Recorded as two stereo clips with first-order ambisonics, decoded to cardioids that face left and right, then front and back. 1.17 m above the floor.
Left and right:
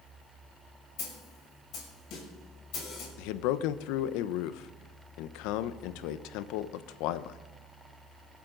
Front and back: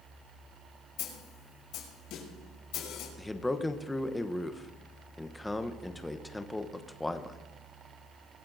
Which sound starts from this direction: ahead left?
A snare drum, at 1.0 s.